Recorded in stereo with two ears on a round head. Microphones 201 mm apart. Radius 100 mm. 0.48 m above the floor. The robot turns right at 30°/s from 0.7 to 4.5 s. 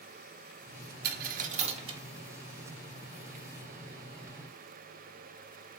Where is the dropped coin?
45° right (ahead or behind), 0.6 m; by 2.0 s 20° right (ahead or behind), 0.6 m.